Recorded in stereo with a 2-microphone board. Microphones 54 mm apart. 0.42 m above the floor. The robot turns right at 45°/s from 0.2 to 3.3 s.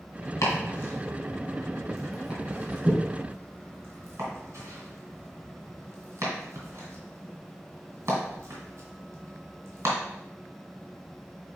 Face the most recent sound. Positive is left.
turn(degrees=-55)  # may be behind; listen again after turning